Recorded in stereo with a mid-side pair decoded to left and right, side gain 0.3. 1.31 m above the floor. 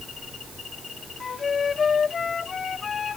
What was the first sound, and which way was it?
A flute, 65° left.